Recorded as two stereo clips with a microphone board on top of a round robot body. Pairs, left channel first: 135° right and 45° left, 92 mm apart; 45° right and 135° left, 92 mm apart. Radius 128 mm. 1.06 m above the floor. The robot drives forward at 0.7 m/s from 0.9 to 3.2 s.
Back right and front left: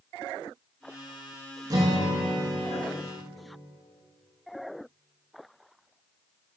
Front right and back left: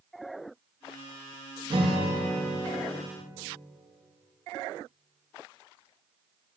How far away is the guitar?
About 1.0 m.